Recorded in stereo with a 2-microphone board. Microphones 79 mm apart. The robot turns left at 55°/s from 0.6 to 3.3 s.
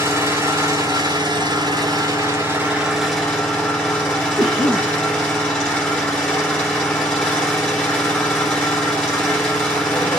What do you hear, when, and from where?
0.0 s an engine running: 45° right, 1.4 m; by 10.2 s 165° left, 1.4 m
4.4 s a cough: 5° right (ahead or behind), 1.8 m